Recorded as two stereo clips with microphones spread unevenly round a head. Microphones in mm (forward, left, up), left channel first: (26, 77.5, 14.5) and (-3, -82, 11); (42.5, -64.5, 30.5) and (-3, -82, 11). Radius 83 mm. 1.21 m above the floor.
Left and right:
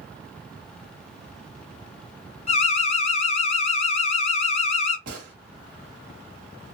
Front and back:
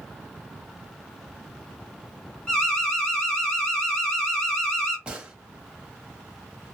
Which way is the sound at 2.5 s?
120° left.